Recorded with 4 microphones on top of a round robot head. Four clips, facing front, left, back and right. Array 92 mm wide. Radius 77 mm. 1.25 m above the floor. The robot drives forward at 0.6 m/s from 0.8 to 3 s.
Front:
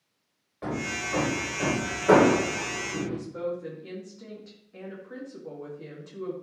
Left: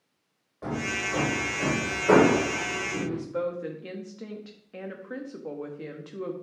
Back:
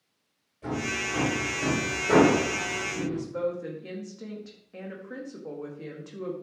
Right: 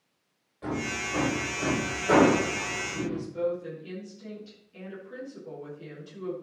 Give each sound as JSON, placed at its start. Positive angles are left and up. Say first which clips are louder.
{"t": 0.6, "sound": "hammering", "louder": "left 1 dB, back 1 dB", "azimuth_deg": 30, "distance_m": 3.5}
{"t": 3.0, "sound": "a woman speaking", "louder": "right 2 dB, back 4 dB", "azimuth_deg": 105, "distance_m": 2.5}